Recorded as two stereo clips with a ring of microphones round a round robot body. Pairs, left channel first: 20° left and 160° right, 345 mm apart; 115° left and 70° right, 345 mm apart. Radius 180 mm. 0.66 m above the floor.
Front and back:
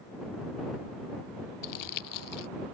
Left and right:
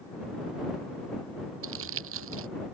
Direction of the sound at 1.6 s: 15° right.